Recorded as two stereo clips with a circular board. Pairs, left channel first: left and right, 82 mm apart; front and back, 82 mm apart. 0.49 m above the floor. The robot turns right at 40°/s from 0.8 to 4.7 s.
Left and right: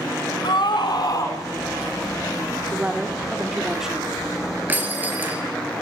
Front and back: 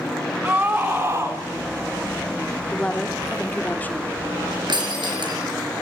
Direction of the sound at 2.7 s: 60° right.